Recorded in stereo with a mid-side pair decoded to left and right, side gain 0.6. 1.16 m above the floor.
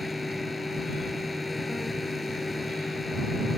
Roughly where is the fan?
Ahead.